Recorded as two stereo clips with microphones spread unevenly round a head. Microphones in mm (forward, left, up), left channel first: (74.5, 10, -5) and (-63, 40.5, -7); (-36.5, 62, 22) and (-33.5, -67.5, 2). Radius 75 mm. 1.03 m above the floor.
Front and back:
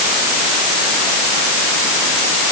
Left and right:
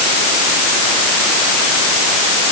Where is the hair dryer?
I don't hear a hair dryer.